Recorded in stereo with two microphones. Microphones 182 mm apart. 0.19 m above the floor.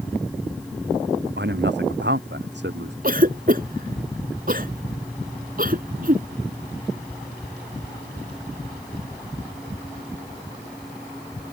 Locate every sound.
1.4 s a man speaking: 75° right (ahead or behind)
3.0 s a cough: 50° right (ahead or behind)